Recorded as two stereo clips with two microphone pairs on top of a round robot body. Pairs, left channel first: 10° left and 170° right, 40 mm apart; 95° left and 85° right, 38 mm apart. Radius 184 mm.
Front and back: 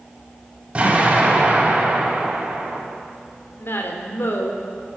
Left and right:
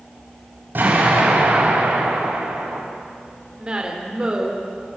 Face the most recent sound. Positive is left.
turn(degrees=-15)